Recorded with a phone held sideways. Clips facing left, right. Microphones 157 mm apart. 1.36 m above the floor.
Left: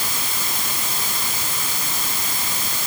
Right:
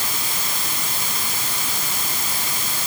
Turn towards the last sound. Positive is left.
No sound to turn to.